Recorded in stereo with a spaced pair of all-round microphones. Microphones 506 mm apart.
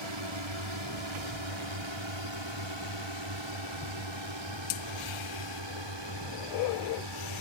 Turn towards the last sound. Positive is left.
turn(degrees=-55)  # may be behind; listen again after turning